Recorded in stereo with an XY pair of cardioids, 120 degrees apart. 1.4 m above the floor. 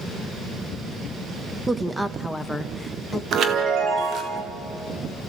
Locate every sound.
1.7 s a woman speaking: 15° right, 0.9 m; by 3.2 s 15° left, 1.8 m
3.3 s a chime: 55° right, 2 m